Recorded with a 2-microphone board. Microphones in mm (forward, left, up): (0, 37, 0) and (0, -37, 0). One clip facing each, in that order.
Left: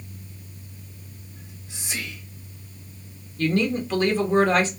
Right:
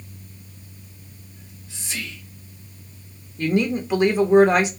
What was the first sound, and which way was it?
Whispering, 20° left (ahead or behind).